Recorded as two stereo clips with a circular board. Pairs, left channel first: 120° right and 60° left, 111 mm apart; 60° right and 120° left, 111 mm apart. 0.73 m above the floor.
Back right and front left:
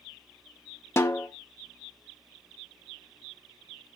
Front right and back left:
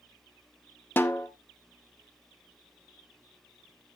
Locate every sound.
1.0 s a snare drum: 105° right, 0.7 m